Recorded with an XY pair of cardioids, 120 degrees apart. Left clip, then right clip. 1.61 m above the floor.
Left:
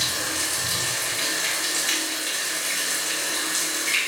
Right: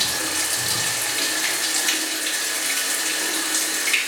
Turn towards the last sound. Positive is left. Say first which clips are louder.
# right 2 dB
turn(degrees=-70)